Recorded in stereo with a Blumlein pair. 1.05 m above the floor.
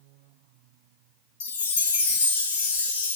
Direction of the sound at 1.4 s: 60° left.